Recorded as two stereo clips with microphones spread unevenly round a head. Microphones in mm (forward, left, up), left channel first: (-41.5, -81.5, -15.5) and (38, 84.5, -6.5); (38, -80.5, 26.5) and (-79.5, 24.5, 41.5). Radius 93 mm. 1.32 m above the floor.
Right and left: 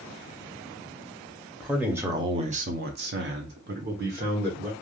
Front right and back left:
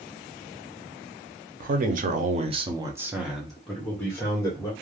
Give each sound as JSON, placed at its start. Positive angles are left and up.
{"t": 1.6, "sound": "a man speaking", "azimuth_deg": 155, "distance_m": 0.8}